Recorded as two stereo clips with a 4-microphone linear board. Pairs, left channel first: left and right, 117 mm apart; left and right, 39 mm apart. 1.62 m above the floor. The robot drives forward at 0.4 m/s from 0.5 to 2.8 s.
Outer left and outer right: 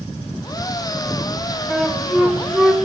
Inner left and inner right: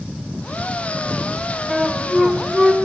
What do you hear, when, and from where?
1.7 s a flute: centre (ahead or behind), 2.5 m; by 2.8 s 5° right (ahead or behind), 2.5 m